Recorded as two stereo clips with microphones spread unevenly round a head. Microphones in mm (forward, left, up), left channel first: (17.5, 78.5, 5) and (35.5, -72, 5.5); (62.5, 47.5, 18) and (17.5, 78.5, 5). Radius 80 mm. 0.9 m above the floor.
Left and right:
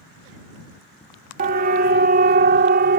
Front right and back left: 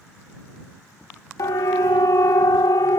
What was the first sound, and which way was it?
A siren, 65° right.